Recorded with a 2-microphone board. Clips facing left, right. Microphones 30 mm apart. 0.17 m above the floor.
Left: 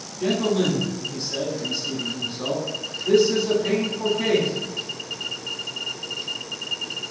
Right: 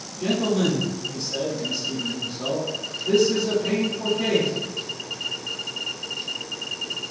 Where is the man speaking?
15° left (ahead or behind), 1.0 m.